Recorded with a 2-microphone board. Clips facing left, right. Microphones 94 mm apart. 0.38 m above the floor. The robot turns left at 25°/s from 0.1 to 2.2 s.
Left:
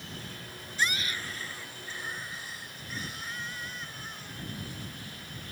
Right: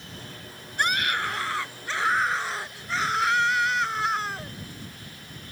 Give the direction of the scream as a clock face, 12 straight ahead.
2 o'clock.